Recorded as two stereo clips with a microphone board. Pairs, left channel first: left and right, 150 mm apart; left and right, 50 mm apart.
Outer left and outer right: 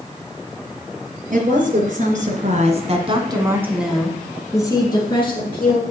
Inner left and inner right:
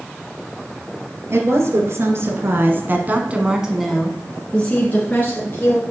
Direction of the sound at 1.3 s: 65° right (ahead or behind).